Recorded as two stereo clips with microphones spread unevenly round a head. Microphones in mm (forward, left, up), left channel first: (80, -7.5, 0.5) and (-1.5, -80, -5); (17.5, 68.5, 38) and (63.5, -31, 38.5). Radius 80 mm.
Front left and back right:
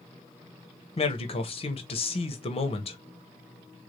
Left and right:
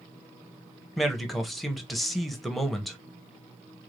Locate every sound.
1.0 s a man speaking: 25° left, 1.1 m